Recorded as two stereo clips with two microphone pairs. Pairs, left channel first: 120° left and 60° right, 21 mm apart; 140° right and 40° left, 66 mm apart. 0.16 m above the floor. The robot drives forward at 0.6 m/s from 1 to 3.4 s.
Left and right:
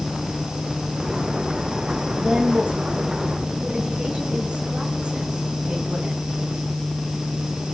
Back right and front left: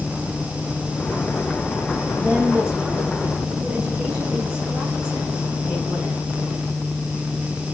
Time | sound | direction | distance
2.2 | a woman speaking | 35° right | 8.5 m